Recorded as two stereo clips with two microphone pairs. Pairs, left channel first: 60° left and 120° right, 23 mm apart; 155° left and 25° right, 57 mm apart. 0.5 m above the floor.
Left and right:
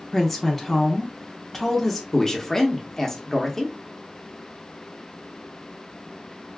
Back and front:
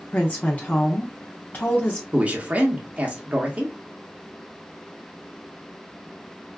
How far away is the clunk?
No clunk in this recording.